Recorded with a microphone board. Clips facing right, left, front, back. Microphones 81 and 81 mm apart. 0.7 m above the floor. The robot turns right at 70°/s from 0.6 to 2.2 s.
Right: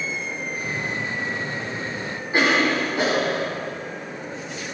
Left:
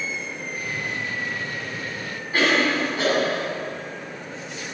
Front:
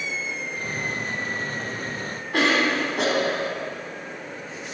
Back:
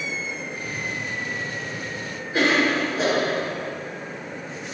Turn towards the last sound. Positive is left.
turn(degrees=-20)